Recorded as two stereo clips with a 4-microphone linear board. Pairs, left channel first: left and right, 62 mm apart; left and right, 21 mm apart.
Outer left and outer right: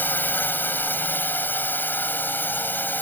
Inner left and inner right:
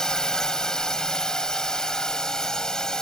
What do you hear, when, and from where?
0.0 s a drone: 30° left (ahead or behind)